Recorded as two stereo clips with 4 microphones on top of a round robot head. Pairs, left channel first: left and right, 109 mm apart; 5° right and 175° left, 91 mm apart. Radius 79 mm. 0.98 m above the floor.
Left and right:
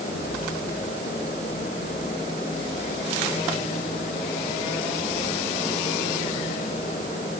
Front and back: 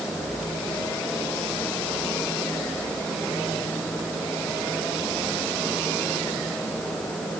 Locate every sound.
Only background noise.